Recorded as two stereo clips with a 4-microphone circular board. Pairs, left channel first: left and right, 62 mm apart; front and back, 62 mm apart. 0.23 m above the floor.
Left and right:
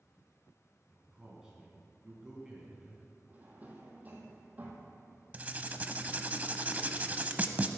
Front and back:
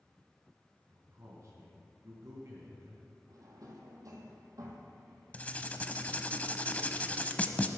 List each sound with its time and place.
0.9 s a man speaking: 165° right, 2.5 m
3.3 s a drawer: 155° right, 2.5 m
5.3 s writing: 50° right, 0.7 m